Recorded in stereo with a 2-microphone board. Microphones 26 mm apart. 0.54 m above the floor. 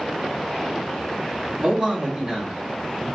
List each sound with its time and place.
1.6 s a man speaking: 40° right (ahead or behind), 1.5 m; by 3.1 s 20° right (ahead or behind), 1.8 m